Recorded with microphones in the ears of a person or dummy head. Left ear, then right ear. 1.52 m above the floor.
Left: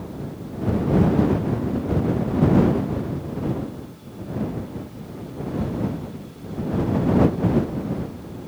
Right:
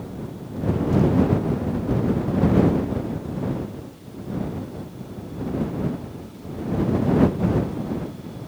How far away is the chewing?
I don't hear chewing.